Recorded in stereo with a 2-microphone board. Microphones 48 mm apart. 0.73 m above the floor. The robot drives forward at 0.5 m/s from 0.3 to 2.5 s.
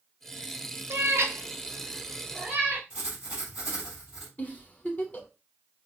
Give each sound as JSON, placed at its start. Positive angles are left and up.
{"t": 0.9, "sound": "a cat meowing", "side_deg": -65, "distance_m": 0.5}
{"t": 2.9, "sound": "writing", "side_deg": -25, "distance_m": 3.0}
{"t": 4.4, "sound": "a giggle", "side_deg": 30, "distance_m": 0.7}